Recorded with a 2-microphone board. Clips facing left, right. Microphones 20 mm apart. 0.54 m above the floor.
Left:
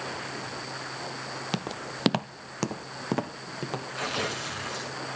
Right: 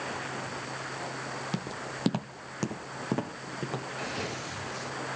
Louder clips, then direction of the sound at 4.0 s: Left 8 dB; 75° left (ahead or behind).